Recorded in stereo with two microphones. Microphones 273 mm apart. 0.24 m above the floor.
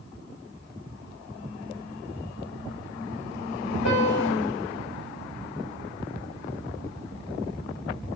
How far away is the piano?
About 3.5 m.